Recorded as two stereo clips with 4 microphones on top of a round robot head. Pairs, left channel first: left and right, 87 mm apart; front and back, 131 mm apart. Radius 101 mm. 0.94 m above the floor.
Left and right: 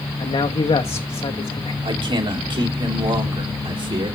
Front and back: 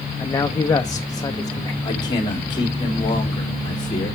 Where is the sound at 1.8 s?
60° right, 2 m.